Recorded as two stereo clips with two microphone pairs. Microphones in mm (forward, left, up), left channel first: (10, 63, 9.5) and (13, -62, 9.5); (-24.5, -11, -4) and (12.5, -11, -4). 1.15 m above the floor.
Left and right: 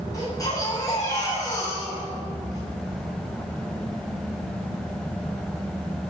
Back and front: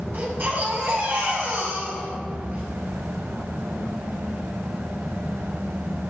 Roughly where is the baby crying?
Ahead left.